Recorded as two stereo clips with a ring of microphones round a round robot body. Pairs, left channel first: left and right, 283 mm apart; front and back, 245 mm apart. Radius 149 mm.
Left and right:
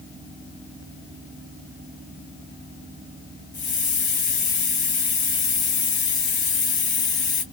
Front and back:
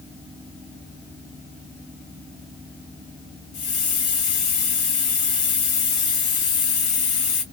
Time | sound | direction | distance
3.5 | a hiss | 25° left | 2 m